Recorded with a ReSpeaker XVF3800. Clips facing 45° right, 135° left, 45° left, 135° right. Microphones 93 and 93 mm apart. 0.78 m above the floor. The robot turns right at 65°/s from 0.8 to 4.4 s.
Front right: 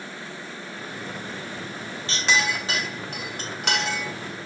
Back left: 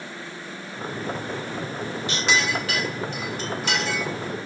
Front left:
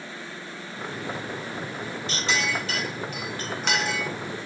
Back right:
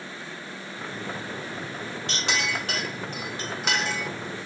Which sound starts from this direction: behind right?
A clink, at 2.1 s.